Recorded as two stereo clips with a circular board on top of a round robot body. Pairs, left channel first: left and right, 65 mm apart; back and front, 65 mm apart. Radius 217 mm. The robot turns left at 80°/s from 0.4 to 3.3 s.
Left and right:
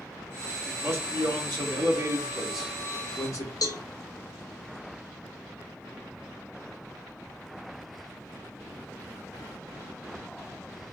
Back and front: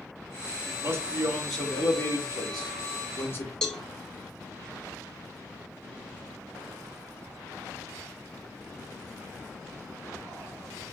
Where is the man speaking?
20° right, 3 m; by 3.5 s 125° left, 3 m.